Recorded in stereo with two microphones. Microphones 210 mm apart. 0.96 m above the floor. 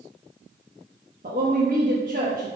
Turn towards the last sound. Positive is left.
turn(degrees=-40)  # may be behind; listen again after turning